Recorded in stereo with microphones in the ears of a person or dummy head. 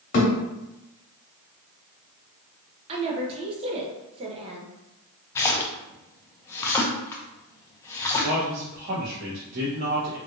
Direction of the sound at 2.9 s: 30° right (ahead or behind).